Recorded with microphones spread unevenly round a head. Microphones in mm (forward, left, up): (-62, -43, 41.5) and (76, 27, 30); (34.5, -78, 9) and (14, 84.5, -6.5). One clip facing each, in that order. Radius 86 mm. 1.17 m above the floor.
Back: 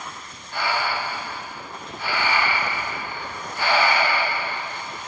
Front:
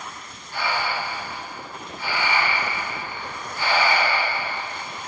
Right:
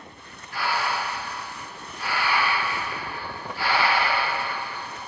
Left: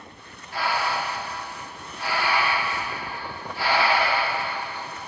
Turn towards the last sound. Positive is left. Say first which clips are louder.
# back 1 dB, left 1 dB
turn(degrees=165)